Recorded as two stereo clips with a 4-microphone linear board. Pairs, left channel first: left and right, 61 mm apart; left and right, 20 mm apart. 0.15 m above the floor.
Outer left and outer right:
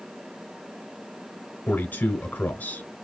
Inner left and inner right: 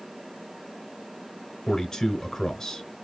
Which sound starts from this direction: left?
A man speaking, at 1.7 s.